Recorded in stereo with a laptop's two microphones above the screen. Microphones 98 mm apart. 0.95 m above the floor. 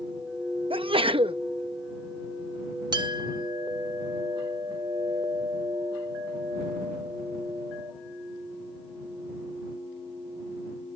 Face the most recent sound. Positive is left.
turn(degrees=-55)  # may be behind; listen again after turning